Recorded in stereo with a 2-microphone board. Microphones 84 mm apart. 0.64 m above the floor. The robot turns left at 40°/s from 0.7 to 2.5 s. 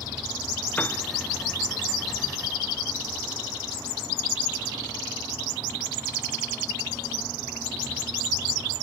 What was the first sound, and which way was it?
A piano, 20° left (ahead or behind).